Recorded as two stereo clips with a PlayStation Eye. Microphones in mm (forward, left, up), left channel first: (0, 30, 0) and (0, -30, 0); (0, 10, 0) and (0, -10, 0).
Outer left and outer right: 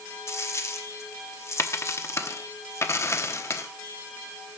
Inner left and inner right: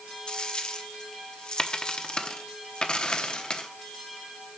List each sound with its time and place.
0.3 s a dropped coin: 50° left (ahead or behind), 1.0 m